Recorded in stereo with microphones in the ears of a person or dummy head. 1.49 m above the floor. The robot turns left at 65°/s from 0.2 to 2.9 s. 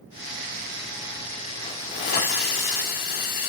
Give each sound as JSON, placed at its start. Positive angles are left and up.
{"t": 1.6, "sound": "a hiss", "azimuth_deg": 175, "distance_m": 1.5}